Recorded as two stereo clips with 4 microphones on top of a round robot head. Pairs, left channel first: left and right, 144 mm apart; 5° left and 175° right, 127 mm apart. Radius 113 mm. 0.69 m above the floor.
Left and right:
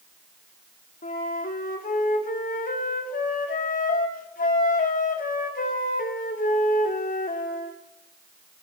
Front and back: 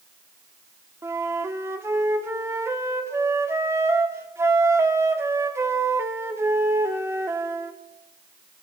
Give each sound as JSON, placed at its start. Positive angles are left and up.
{"t": 1.0, "sound": "a flute", "azimuth_deg": 115, "distance_m": 1.5}